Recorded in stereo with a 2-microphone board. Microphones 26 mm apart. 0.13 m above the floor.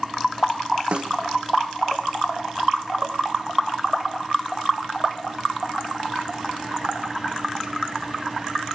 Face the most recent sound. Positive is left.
turn(degrees=-45)  # may be behind; listen again after turning